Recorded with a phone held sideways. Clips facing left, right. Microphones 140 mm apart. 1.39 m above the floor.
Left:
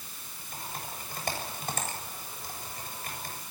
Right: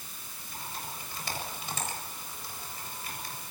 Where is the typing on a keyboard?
50° left (ahead or behind), 7.5 m.